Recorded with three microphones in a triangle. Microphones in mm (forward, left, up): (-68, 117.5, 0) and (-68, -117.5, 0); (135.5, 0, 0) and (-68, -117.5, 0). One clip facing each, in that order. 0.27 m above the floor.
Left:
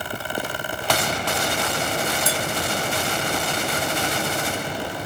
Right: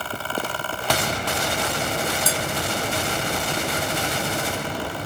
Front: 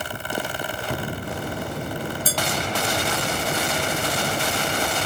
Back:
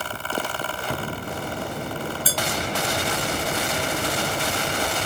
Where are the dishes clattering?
20° left, 1.0 m.